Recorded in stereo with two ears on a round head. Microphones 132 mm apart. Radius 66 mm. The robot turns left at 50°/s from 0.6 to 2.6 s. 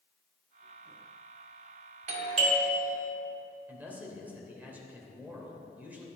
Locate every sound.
2.1 s a doorbell: 50° right (ahead or behind), 2.5 m; by 3.0 s 35° right (ahead or behind), 2.5 m
3.7 s a man speaking: 15° right (ahead or behind), 3 m